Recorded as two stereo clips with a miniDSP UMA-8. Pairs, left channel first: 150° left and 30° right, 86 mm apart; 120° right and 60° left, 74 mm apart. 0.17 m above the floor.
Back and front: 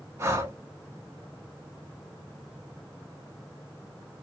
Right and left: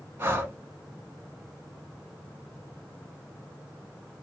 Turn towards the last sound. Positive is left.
turn(degrees=15)